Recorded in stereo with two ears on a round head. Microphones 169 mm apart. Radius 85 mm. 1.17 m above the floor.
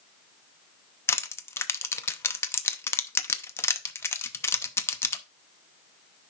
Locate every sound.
1.1 s crushing: 15° left (ahead or behind), 0.6 m